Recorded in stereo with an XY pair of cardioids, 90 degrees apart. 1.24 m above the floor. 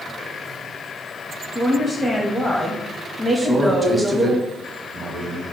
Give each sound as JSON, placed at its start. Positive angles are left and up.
{"t": 1.6, "sound": "a woman speaking", "azimuth_deg": -15, "distance_m": 0.9}
{"t": 3.4, "sound": "a man speaking", "azimuth_deg": -25, "distance_m": 1.0}